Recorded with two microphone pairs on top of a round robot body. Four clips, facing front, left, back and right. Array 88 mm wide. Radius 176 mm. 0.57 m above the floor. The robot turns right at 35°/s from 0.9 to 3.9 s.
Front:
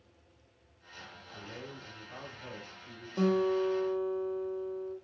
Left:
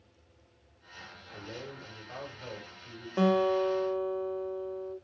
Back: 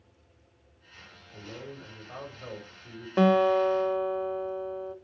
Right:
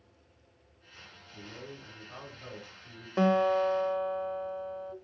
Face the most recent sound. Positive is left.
turn(degrees=-140)